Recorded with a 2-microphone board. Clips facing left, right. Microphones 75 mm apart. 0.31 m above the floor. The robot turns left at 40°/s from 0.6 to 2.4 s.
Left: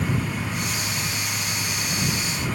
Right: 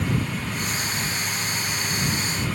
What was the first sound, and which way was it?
Only background noise.